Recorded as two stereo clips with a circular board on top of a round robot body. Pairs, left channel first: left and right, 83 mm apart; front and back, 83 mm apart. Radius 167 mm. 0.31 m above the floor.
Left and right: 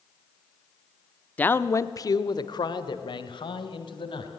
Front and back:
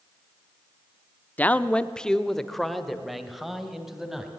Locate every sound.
1.4 s a man speaking: 45° left, 1.0 m; by 4.3 s 95° left, 3 m